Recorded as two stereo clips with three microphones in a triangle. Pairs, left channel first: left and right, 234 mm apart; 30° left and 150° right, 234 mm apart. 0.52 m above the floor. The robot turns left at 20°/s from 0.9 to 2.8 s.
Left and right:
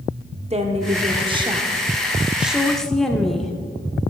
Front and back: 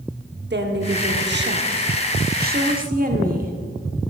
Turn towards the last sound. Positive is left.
turn(degrees=180)